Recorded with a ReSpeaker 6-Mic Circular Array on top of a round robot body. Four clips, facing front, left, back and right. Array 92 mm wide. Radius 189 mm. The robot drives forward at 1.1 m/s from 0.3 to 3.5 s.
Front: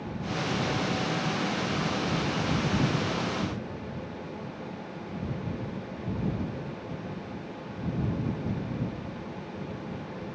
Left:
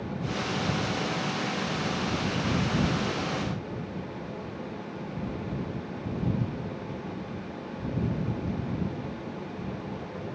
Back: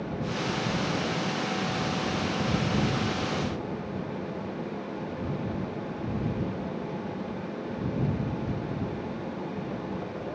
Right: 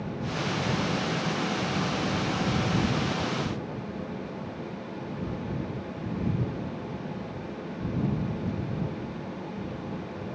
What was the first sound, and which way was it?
Only background noise.